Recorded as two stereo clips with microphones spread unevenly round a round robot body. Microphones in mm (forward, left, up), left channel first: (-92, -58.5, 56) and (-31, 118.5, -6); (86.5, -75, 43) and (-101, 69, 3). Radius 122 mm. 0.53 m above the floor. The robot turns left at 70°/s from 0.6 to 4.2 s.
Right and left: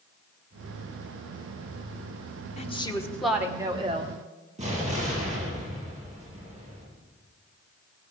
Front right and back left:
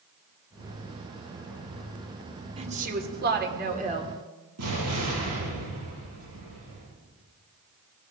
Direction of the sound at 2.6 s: 165° right.